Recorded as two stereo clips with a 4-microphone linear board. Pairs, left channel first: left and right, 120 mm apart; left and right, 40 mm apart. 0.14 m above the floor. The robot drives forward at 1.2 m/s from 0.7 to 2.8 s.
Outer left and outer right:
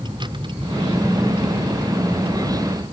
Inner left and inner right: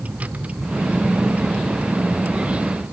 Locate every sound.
0.0 s a vehicle: 40° right (ahead or behind); by 2.9 s 50° right (ahead or behind)